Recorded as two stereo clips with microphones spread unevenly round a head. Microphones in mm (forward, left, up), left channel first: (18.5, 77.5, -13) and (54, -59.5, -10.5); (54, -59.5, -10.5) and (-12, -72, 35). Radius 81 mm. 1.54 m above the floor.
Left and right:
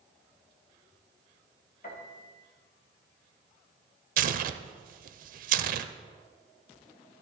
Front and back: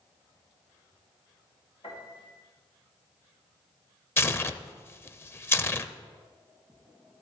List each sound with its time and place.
1.8 s a piano: 80° left, 2 m
4.2 s tearing paper: 50° right, 0.6 m